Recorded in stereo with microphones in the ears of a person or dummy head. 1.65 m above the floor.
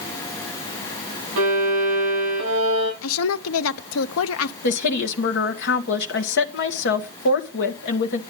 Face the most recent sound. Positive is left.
turn(degrees=65)  # may be behind; listen again after turning